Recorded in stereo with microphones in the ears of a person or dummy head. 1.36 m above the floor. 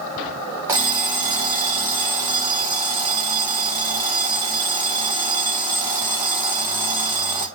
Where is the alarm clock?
15° right (ahead or behind), 0.5 m.